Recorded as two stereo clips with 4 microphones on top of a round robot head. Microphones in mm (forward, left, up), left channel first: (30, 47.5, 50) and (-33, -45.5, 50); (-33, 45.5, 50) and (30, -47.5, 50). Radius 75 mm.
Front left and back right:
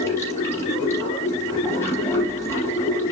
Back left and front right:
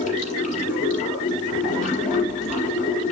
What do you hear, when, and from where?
0.0 s running water: 125° left, 6.5 m